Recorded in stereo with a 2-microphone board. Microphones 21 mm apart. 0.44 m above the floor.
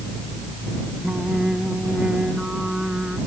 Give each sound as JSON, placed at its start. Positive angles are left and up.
{"t": 1.0, "sound": "singing", "side_deg": -50}